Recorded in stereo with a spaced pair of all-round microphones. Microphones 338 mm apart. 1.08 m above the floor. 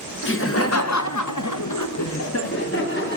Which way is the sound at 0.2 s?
35° left (ahead or behind).